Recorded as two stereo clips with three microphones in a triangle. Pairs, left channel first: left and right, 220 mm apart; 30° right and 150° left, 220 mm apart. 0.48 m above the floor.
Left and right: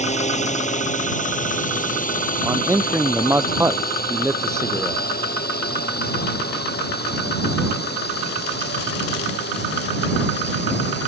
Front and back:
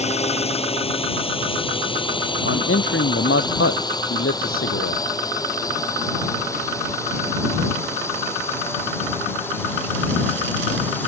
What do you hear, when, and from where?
0.0 s a drone: 30° left; by 11.1 s 50° left
2.4 s a man speaking: 10° right